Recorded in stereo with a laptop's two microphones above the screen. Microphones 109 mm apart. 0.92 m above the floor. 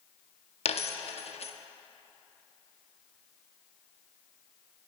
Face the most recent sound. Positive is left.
turn(degrees=65)  # may be behind; listen again after turning